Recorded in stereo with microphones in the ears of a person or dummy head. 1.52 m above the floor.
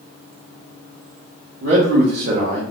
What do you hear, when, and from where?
1.6 s a man speaking: 75° right (ahead or behind), 1.2 m; by 2.6 s 45° right (ahead or behind), 0.9 m